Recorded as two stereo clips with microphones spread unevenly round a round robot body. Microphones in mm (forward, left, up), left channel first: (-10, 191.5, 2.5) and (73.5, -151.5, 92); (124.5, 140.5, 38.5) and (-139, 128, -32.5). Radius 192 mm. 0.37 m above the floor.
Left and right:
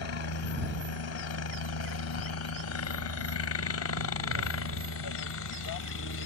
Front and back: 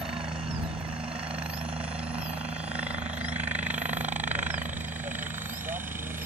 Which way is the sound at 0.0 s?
105° left.